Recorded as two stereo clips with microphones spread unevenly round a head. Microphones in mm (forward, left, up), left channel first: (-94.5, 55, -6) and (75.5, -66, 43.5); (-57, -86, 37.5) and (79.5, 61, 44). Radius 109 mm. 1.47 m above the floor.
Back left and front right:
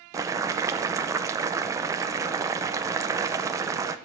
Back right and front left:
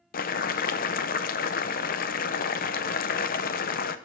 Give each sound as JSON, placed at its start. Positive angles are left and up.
{"t": 0.1, "sound": "boiling", "azimuth_deg": -95, "distance_m": 0.5}